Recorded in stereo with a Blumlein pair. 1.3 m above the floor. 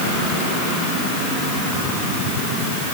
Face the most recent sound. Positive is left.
No sound to turn to.